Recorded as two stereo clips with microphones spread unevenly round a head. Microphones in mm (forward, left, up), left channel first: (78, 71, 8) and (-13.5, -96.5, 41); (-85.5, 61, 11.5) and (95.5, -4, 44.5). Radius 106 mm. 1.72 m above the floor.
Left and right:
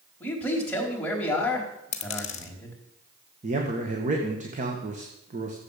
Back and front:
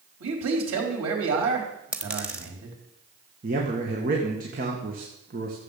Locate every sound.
0.2 s a man speaking: 25° right, 4.5 m
1.9 s a dropped coin: 35° left, 1.2 m
3.4 s a man speaking: 70° right, 2.0 m